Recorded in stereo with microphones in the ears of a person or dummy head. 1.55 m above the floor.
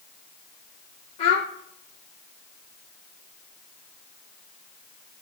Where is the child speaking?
35° left (ahead or behind), 0.8 m.